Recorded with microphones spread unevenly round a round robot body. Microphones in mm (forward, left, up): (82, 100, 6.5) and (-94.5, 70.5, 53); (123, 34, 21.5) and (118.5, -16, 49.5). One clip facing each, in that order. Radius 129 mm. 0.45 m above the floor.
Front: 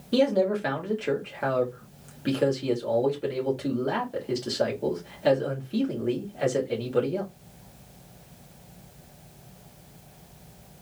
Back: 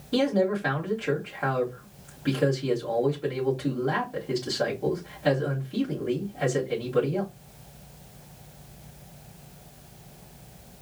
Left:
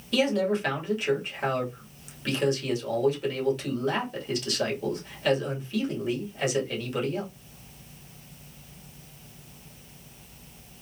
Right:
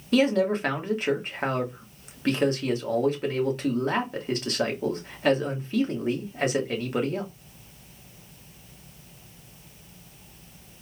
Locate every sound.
0.1 s a man speaking: 35° right, 1.7 m